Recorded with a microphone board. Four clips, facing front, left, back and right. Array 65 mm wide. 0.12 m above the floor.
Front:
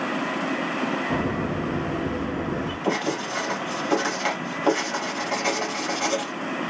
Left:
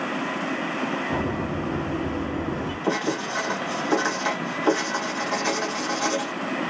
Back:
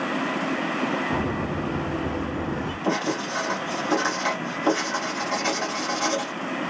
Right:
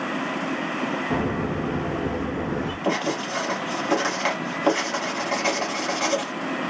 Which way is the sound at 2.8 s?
75° right.